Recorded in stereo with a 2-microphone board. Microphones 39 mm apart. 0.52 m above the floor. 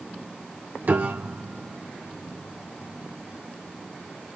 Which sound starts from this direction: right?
A piano, at 0.8 s.